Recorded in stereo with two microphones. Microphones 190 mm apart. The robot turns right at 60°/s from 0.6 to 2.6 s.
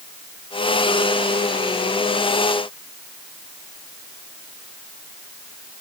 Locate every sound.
Only background noise.